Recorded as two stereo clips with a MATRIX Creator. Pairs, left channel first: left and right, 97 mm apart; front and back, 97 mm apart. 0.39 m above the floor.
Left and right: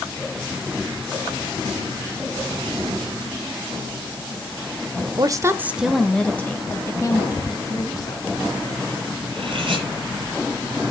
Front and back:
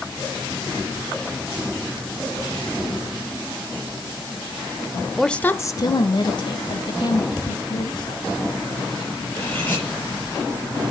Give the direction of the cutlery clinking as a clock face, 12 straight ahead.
2 o'clock.